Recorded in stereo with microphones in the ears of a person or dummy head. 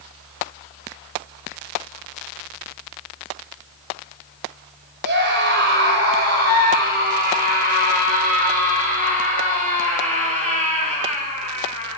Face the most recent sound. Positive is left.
turn(degrees=-40)  # may be behind; listen again after turning